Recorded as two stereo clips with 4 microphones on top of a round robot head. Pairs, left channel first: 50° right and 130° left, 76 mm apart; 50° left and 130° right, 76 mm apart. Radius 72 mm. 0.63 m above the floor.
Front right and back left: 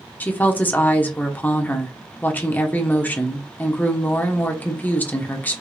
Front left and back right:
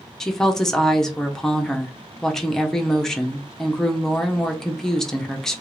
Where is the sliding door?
No sliding door in this recording.